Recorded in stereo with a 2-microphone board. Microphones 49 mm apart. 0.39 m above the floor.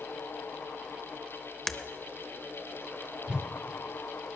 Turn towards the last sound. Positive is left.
turn(degrees=-20)  # may be behind; listen again after turning